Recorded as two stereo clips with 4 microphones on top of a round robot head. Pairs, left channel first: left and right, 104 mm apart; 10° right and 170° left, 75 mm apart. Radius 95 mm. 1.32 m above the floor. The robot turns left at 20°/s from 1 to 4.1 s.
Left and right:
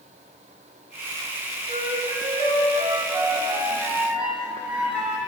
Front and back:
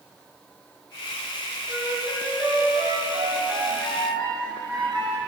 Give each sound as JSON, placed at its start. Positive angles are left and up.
{"t": 1.7, "sound": "a flute", "azimuth_deg": -120, "distance_m": 3.0}